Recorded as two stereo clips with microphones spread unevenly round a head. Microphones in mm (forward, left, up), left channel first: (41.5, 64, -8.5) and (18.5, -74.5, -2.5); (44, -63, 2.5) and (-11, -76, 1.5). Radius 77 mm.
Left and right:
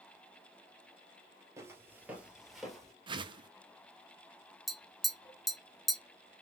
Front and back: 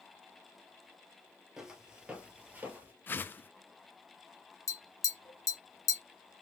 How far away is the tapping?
About 1.5 m.